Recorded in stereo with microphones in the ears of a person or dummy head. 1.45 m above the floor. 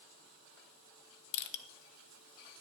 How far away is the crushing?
About 0.8 m.